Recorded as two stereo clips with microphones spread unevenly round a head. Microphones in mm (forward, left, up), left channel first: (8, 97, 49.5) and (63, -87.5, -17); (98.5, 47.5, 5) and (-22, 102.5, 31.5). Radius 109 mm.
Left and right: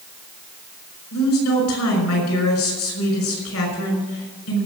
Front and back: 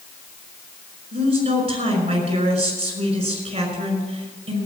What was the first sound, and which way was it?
A woman speaking, 120° left.